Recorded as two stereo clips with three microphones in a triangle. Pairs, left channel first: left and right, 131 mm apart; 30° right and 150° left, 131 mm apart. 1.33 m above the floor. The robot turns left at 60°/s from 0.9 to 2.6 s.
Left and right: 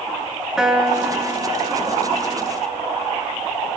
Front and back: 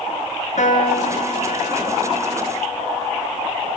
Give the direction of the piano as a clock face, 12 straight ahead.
12 o'clock.